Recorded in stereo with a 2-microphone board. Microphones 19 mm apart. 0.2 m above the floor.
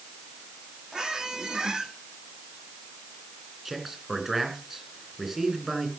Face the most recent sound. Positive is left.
turn(degrees=-15)  # may be behind; listen again after turning